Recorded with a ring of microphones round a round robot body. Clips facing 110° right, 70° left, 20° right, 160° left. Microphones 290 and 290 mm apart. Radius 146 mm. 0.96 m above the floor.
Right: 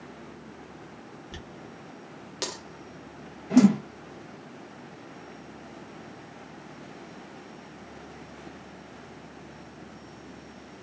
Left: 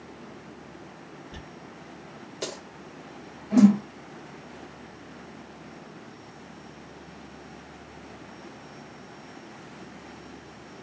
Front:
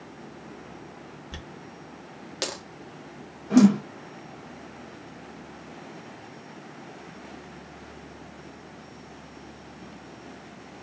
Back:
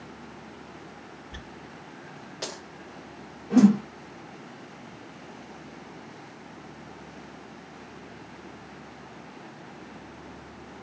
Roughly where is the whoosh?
Right.